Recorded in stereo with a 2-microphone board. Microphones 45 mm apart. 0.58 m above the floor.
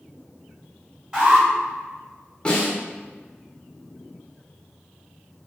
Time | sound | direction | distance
1.1 | an alarm | 15° right (ahead or behind) | 1.9 m
2.5 | a snare drum | 20° left (ahead or behind) | 0.9 m